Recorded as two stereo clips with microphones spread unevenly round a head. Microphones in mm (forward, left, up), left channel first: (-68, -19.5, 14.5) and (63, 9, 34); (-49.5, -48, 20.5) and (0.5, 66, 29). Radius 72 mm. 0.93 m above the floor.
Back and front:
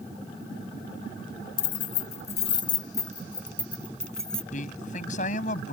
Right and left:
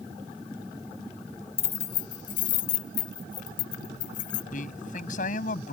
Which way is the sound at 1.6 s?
155° right.